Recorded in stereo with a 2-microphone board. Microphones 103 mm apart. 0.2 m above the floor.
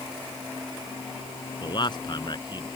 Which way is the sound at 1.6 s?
50° left (ahead or behind).